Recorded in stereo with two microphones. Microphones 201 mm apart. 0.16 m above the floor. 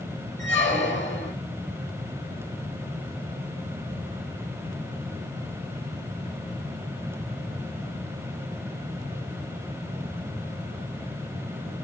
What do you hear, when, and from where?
0.4 s a squeak: 70° left (ahead or behind), 2 m